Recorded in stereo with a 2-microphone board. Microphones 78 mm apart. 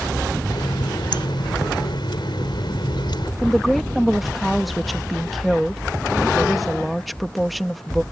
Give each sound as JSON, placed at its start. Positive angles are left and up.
{"t": 0.5, "sound": "a running tap", "side_deg": 75}
{"t": 3.4, "sound": "a woman speaking", "side_deg": 0}